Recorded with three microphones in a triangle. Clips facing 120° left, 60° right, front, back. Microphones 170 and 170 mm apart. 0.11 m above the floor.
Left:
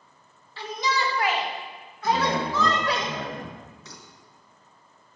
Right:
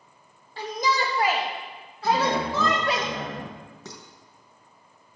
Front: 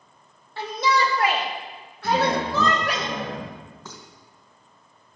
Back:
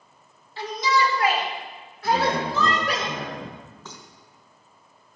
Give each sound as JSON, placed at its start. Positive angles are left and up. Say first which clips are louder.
{"t": 0.6, "sound": "a shout", "louder": "right 2 dB, front 1 dB", "azimuth_deg": -25, "distance_m": 4.0}
{"t": 2.0, "sound": "a man speaking", "louder": "right 1 dB, front 1 dB", "azimuth_deg": 15, "distance_m": 4.0}
{"t": 3.9, "sound": "dishes clattering", "louder": "right 5 dB, even", "azimuth_deg": -80, "distance_m": 3.5}